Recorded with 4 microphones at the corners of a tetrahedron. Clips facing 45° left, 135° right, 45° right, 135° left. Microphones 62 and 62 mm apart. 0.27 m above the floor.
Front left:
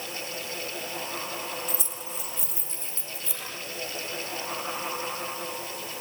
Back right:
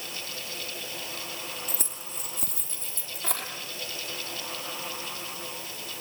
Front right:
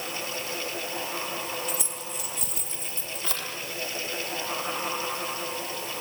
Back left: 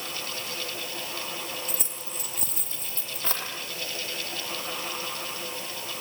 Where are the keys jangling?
175° right, 4 m; by 3.5 s 170° right, 5 m.